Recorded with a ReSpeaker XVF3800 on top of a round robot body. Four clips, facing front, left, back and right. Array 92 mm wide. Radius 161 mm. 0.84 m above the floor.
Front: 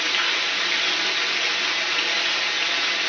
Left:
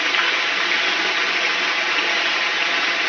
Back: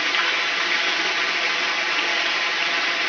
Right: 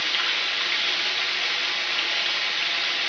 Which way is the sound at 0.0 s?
120° left.